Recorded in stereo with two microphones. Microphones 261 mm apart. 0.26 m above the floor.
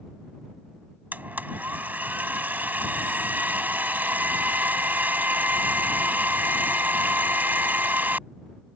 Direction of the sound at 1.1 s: 5° right (ahead or behind).